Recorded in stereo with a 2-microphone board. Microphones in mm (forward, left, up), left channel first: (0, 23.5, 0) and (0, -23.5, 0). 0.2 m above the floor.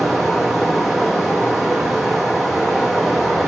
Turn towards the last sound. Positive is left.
turn(degrees=-5)  # may be behind; listen again after turning